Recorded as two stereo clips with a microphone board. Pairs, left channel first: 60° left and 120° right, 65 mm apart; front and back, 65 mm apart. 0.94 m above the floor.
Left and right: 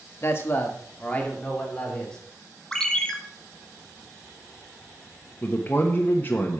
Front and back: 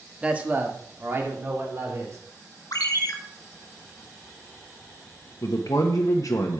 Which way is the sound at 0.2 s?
110° left.